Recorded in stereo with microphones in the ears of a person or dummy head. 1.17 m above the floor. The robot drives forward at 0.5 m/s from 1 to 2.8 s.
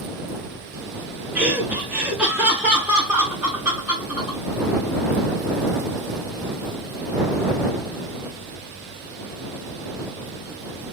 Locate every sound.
1.4 s laughter: 5° right (ahead or behind), 0.7 m